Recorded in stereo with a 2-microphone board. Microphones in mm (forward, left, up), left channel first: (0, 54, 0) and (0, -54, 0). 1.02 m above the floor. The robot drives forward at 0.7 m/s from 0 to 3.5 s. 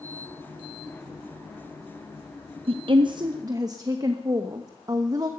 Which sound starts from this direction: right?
A woman speaking, at 2.7 s.